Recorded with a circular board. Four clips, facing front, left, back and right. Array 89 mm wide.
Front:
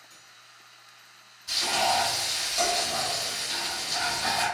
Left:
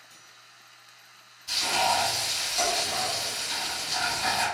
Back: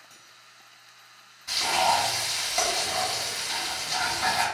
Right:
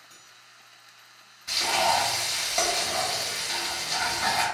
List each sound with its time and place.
0.1 s cutlery clinking: 140° right, 2.0 m
1.5 s frying: 120° right, 1.6 m